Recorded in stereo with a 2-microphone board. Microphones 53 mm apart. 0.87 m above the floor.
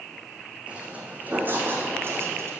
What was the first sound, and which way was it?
Footsteps, 20° right (ahead or behind).